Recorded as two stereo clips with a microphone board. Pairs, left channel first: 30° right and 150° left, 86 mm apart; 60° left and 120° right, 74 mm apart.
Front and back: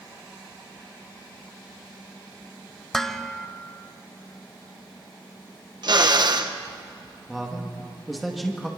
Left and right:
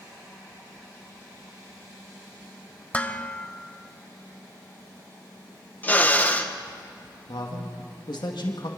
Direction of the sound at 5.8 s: 125° left.